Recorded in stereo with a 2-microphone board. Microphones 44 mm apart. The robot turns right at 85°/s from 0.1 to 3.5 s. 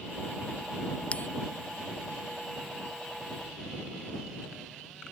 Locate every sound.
1.1 s a bell: 25° left (ahead or behind); by 1.3 s 40° left (ahead or behind)